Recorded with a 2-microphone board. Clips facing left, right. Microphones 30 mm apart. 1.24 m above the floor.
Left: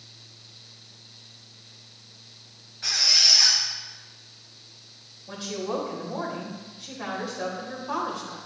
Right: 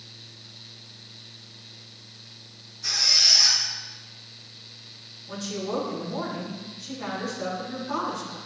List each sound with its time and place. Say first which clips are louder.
2.8 s a squeak: left 1 dB; 80° left, 4.5 m
5.3 s a woman speaking: even; 50° left (ahead or behind), 5 m